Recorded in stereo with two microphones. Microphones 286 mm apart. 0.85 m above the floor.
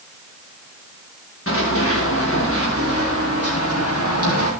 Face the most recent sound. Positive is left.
turn(degrees=60)  # may be behind; listen again after turning